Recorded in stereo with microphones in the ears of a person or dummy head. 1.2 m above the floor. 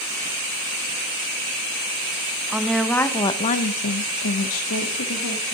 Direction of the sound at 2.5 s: 5° right (ahead or behind).